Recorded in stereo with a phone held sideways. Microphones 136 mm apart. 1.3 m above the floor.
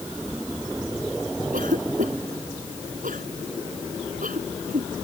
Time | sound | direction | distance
1.5 | a cough | 85° right | ?